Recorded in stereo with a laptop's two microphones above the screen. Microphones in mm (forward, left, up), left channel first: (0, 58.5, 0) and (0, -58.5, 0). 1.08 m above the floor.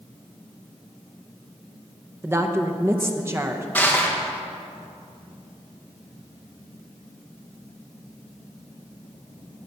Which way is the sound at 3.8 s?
15° left (ahead or behind).